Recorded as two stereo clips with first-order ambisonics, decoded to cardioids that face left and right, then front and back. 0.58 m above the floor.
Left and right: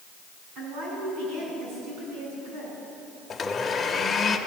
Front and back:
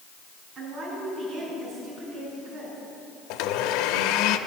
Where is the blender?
15° left, 0.8 m.